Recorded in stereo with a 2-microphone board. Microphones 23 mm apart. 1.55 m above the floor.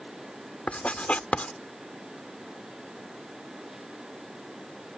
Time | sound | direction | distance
0.7 | writing | 85° left | ?